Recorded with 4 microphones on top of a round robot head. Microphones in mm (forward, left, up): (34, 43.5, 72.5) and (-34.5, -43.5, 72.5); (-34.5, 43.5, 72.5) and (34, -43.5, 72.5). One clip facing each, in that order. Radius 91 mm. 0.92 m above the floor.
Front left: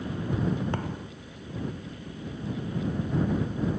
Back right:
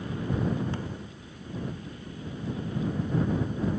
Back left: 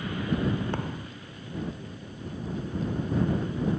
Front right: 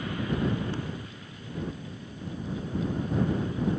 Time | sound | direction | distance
0.7 | a thud | 90° left | ?